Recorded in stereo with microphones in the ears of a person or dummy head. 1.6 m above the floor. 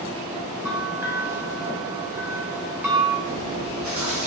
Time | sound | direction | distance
0.7 | a bell | 10° right (ahead or behind) | 0.8 m
3.2 | chewing | 65° right (ahead or behind) | 1.8 m